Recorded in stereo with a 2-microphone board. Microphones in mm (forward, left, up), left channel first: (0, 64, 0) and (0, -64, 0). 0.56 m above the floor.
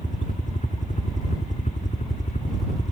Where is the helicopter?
65° left (ahead or behind).